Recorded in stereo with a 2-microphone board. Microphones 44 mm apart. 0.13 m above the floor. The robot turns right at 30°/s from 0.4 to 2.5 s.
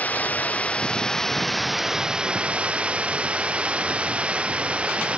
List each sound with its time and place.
0.0 s running water: 145° left; by 5.2 s 155° right